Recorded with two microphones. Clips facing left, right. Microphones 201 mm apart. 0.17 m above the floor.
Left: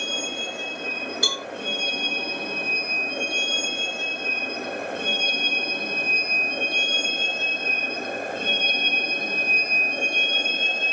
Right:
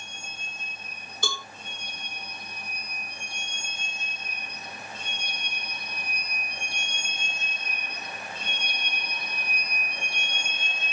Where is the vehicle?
80° left; by 10.9 s 50° left (ahead or behind).